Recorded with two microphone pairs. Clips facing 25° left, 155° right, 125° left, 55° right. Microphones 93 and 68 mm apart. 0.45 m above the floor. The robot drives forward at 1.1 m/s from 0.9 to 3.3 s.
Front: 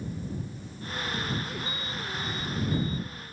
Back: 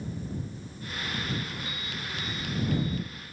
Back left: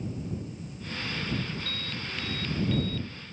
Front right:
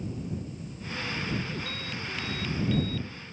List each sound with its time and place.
1.7 s an alarm: 135° right; by 3.1 s 145° right